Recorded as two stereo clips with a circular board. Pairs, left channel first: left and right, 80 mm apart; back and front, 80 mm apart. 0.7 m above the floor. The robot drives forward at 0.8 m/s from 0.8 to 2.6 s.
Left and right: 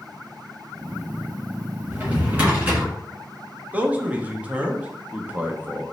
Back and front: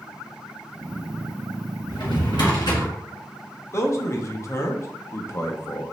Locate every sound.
1.9 s a drawer: 160° right, 1.8 m; by 2.9 s 165° right, 2.5 m
3.7 s a man speaking: 150° right, 0.6 m